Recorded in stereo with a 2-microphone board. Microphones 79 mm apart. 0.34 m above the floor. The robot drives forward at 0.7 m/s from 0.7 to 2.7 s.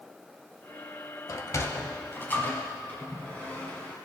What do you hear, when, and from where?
1.3 s a sliding door: 45° left (ahead or behind), 0.7 m; by 4.0 s 20° left (ahead or behind), 1.4 m